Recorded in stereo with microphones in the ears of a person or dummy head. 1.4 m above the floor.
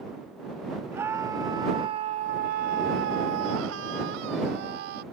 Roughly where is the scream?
Centre.